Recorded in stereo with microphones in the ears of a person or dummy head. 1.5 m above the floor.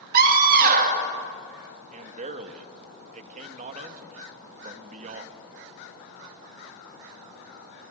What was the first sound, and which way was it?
A scream, 50° right (ahead or behind).